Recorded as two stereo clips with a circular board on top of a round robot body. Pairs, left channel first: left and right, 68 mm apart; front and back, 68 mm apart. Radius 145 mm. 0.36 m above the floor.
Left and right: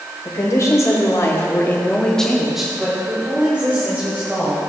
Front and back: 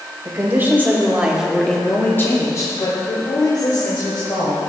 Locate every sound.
0.2 s a woman speaking: 130° left, 2 m; by 4.6 s 25° right, 3 m